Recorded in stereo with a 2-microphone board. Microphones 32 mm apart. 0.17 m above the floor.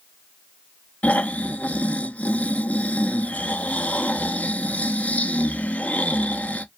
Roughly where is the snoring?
Left.